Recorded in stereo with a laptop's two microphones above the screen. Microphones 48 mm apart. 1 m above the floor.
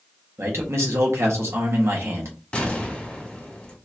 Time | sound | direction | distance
0.4 | a man speaking | 75° right (ahead or behind) | 1.2 m
2.5 | an explosion | 25° left (ahead or behind) | 1.2 m